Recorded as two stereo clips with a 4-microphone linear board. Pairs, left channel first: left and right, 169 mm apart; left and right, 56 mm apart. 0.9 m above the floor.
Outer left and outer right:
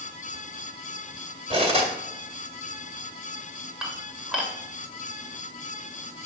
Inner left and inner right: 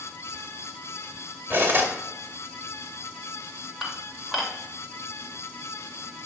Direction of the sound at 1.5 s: 40° right (ahead or behind).